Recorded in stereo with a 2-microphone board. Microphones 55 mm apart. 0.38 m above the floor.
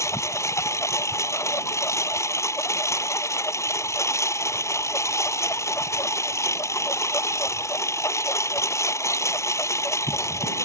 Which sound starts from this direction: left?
A lawn mower, at 0.0 s.